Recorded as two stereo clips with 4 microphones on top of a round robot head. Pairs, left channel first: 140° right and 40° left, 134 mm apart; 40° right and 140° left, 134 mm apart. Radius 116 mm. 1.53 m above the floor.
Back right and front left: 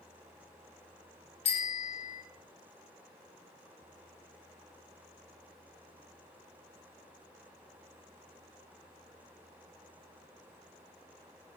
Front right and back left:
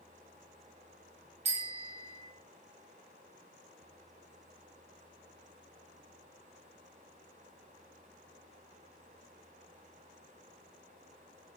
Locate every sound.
1.4 s a bicycle bell: straight behind, 3 m